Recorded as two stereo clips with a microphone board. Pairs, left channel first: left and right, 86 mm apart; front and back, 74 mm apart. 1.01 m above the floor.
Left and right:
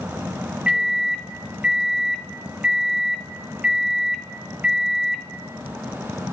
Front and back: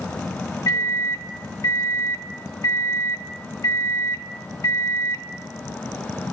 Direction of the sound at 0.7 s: 15° right.